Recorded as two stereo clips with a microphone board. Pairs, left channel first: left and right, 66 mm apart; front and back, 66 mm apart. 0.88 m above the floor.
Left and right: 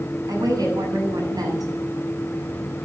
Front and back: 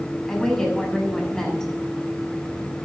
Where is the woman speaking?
80° right, 6.5 m.